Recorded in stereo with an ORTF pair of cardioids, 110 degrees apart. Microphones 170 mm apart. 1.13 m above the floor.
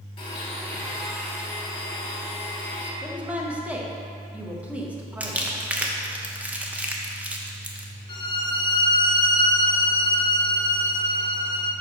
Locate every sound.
0.2 s a blender: 30° left, 2 m
3.0 s a woman speaking: 10° right, 1.1 m
5.2 s crumpling: 10° right, 0.8 m
8.1 s a violin: 25° left, 0.8 m